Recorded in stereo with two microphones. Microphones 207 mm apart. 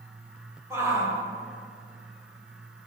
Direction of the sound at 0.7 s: 15° right (ahead or behind).